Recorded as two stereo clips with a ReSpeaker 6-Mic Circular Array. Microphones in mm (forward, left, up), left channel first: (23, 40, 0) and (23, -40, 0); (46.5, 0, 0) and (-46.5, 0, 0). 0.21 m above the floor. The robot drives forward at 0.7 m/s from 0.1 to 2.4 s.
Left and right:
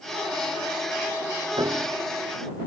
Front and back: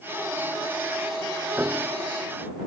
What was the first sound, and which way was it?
A piano, 105° right.